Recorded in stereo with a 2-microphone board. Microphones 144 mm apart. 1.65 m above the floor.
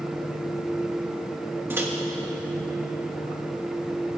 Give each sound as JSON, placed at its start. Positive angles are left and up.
{"t": 1.7, "sound": "a microwave", "side_deg": -15, "distance_m": 1.5}